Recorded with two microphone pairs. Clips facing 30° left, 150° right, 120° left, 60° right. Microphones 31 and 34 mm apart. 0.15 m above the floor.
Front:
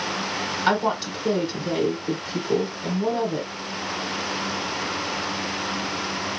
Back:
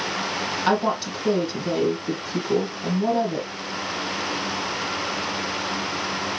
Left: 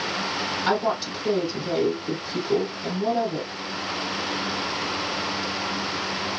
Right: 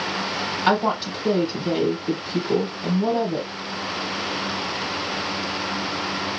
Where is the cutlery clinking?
I don't hear cutlery clinking.